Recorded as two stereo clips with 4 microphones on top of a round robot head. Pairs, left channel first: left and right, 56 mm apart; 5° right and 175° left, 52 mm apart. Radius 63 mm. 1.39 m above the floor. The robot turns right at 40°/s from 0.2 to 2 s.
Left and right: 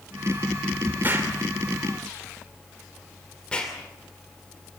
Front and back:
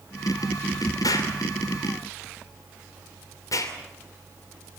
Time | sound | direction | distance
1.0 | an explosion | 25° right | 2.5 m